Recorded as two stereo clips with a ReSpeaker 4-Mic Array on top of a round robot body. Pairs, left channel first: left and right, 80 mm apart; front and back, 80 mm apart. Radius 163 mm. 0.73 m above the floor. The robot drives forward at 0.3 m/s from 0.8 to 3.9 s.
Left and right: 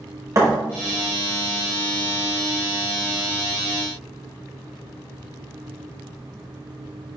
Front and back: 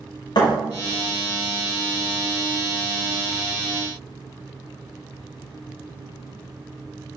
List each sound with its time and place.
0.3 s a thud: 35° right, 0.7 m